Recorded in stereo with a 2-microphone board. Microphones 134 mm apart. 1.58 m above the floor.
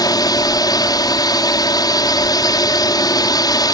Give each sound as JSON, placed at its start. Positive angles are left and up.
{"t": 0.0, "sound": "a drone", "side_deg": 30}